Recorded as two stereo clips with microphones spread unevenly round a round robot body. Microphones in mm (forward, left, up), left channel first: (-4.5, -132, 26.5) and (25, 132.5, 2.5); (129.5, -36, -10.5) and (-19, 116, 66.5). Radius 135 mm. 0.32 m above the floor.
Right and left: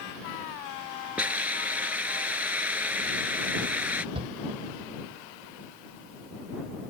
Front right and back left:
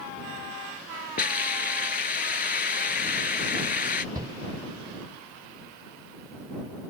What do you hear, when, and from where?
1.2 s a hiss: straight ahead
4.2 s a shout: 40° left